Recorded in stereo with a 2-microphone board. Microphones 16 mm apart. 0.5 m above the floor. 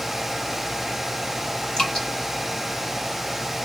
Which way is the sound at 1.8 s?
45° left (ahead or behind).